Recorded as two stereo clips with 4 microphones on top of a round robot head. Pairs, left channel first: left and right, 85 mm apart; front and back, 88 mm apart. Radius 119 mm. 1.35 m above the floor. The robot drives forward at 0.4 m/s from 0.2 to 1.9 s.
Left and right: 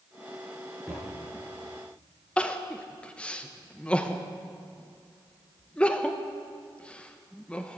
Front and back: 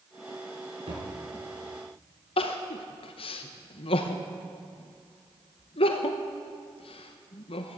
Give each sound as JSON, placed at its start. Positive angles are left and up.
{"t": 0.9, "sound": "a thud", "azimuth_deg": -175, "distance_m": 5.5}
{"t": 2.4, "sound": "crying", "azimuth_deg": 10, "distance_m": 0.8}